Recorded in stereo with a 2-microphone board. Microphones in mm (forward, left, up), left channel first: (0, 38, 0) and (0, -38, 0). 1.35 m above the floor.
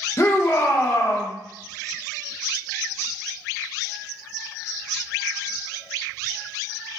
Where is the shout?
35° left (ahead or behind), 0.8 m.